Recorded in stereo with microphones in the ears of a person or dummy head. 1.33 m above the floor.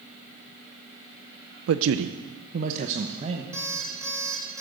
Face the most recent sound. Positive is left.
turn(degrees=-20)  # may be behind; listen again after turning